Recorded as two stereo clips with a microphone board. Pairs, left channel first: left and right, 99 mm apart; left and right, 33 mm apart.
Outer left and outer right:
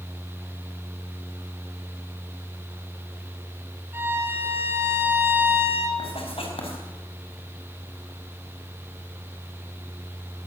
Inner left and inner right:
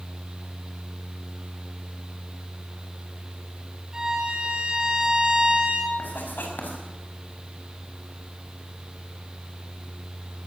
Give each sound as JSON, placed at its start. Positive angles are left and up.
{"t": 3.9, "sound": "a violin", "side_deg": -25, "distance_m": 3.0}
{"t": 6.0, "sound": "writing", "side_deg": 70, "distance_m": 4.5}